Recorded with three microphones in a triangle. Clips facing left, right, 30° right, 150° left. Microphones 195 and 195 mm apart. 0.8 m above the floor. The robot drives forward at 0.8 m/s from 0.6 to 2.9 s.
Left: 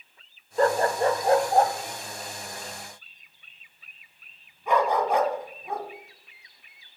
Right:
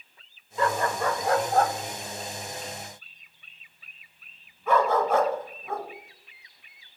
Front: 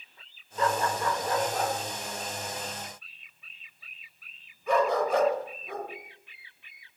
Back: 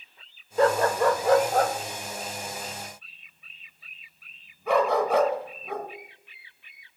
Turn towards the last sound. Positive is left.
turn(degrees=165)